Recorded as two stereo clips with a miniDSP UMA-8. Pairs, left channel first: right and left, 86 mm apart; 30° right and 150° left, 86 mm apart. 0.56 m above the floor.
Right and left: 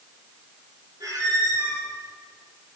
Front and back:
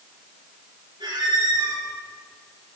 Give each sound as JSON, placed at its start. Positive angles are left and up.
{"t": 1.0, "sound": "a squeak", "azimuth_deg": 130, "distance_m": 6.0}